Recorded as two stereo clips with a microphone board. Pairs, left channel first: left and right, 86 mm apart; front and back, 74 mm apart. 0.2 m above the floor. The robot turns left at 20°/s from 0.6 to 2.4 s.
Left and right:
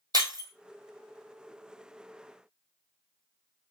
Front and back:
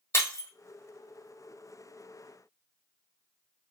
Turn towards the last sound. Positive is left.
turn(degrees=-85)